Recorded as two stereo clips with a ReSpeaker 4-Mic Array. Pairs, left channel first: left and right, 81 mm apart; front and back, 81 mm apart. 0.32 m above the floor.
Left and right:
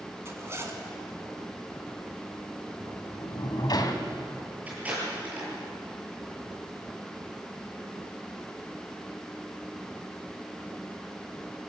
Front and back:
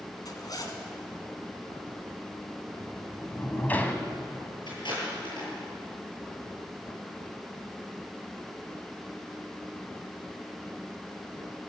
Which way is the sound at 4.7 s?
20° right.